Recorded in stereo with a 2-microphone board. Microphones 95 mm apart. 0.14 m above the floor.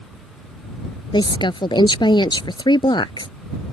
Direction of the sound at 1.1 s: 55° left (ahead or behind).